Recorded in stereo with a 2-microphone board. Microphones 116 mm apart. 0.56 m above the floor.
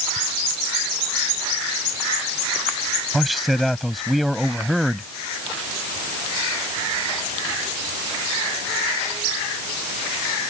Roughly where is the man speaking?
Centre.